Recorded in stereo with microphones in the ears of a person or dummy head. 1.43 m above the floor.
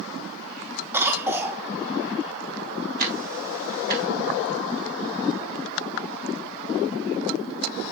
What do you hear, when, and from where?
0.9 s a cough: 10° right (ahead or behind), 1.8 m
3.0 s ticking: 50° right (ahead or behind), 2.5 m